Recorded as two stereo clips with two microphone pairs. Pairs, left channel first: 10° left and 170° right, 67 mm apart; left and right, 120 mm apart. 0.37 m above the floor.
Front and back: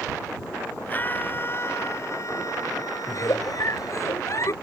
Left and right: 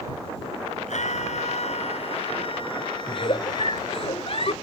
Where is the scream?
75° left; by 4.1 s 25° left.